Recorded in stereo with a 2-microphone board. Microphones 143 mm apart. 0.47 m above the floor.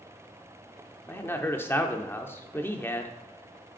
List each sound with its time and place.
1.1 s a man speaking: 15° left (ahead or behind), 0.7 m